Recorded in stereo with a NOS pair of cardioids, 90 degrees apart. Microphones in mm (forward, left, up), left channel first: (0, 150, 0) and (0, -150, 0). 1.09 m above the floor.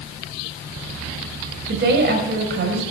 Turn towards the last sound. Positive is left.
turn(degrees=-45)